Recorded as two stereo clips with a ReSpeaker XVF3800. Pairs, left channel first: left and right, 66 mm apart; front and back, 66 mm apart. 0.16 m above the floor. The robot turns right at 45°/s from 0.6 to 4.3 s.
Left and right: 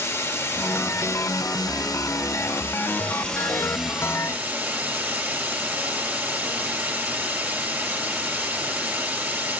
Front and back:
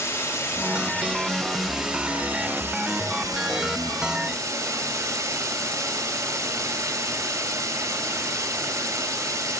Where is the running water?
40° left, 2 m; by 9.6 s 150° right, 2 m.